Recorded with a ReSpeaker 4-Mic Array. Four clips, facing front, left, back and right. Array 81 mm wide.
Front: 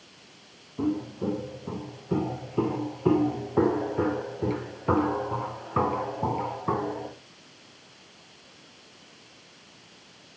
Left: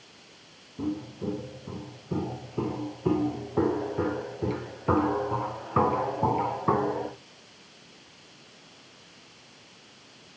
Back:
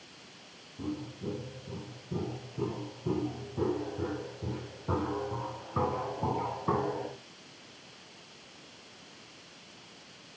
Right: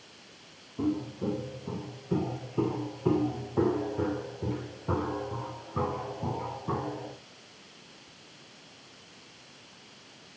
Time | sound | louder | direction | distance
0.8 | footsteps | right 2 dB, front 9 dB | 15° right | 4.5 m